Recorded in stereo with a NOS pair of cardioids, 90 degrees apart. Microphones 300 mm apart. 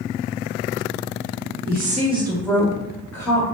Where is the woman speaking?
35° right, 1.1 m; by 3.4 s 10° left, 1.8 m.